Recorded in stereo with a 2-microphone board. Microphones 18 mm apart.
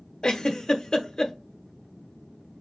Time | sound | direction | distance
0.2 | a giggle | 45° left (ahead or behind) | 0.8 m